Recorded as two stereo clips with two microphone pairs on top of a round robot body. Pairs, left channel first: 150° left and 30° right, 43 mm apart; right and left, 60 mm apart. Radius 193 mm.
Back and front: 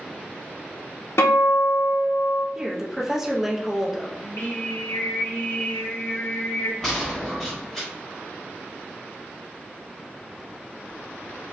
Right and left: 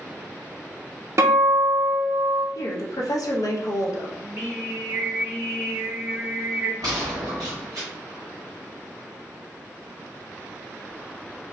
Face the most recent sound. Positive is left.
turn(degrees=75)